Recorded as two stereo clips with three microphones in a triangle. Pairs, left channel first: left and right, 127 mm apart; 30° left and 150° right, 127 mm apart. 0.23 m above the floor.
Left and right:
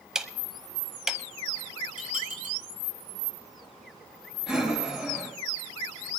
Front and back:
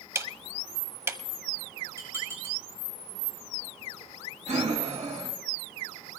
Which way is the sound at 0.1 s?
165° right.